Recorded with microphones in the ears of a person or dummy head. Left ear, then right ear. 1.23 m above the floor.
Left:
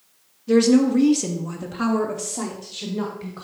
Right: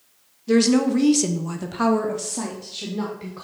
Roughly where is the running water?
I don't hear running water.